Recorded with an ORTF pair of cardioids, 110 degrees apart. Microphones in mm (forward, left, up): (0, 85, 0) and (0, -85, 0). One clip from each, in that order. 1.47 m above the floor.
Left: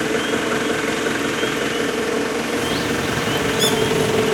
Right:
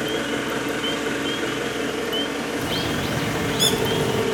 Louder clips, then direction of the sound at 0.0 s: Left 4 dB; 35° left.